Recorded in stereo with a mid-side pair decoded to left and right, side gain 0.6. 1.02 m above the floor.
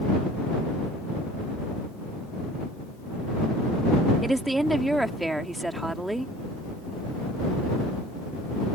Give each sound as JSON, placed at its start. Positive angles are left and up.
{"t": 4.2, "sound": "a woman speaking", "azimuth_deg": -10}